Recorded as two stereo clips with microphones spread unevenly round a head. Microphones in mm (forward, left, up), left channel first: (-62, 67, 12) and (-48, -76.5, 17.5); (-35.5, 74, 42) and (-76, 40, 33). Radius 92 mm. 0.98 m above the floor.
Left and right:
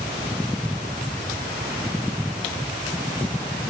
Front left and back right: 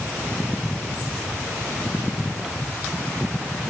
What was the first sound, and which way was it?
Only background noise.